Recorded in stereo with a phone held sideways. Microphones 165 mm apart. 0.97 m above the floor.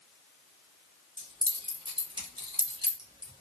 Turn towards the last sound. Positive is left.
turn(degrees=-30)  # may be behind; listen again after turning